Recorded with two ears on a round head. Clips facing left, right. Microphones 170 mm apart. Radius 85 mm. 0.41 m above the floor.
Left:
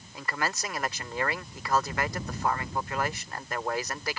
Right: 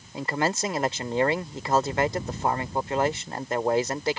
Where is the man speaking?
25° right (ahead or behind).